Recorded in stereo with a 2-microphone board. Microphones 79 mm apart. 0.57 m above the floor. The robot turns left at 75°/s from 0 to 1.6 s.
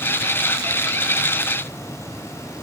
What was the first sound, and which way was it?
Only background noise.